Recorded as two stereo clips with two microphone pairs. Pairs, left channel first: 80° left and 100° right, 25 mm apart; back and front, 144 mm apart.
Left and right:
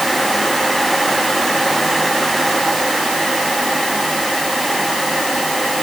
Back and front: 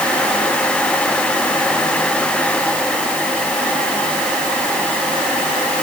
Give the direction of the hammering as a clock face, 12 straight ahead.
No hammering in this recording.